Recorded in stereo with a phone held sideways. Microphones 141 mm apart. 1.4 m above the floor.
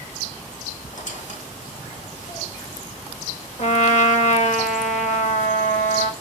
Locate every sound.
0.9 s a squeak: 60° left (ahead or behind), 5 m
3.6 s a trumpet: 55° left (ahead or behind), 1.7 m